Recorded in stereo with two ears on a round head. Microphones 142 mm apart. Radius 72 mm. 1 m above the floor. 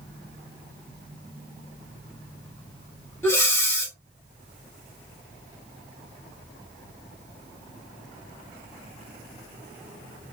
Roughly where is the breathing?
Centre.